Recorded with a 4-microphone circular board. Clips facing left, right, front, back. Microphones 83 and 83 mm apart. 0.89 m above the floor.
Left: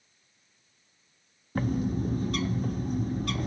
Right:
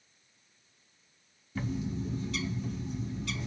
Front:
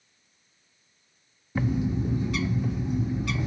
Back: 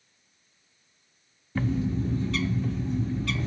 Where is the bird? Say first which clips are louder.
Left 6 dB, front 1 dB; 70° left, 0.6 m.